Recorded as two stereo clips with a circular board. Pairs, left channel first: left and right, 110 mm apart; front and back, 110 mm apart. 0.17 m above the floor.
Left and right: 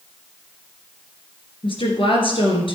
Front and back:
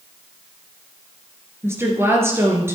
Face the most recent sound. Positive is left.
turn(degrees=115)